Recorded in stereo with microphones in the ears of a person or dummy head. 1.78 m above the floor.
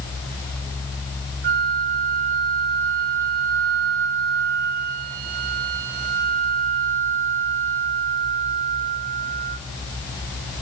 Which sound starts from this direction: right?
A flute, at 1.4 s.